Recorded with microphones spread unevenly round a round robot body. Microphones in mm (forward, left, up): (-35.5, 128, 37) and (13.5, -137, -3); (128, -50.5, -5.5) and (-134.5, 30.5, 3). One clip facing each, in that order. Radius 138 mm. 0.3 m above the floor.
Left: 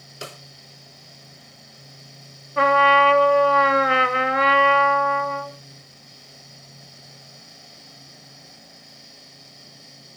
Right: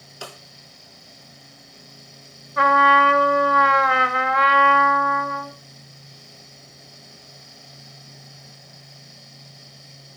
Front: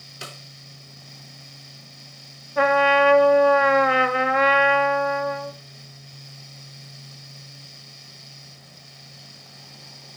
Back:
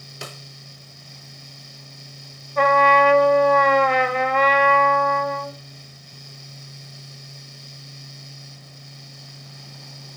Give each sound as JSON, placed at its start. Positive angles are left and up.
{"t": 0.2, "sound": "a snare drum", "azimuth_deg": 170, "distance_m": 0.9}
{"t": 2.6, "sound": "a trumpet", "azimuth_deg": 55, "distance_m": 1.2}